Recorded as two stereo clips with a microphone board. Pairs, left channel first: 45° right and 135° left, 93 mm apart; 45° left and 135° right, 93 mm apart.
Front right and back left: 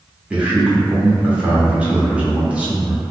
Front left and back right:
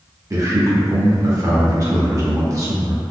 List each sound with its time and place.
0.3 s a man speaking: 155° right, 0.8 m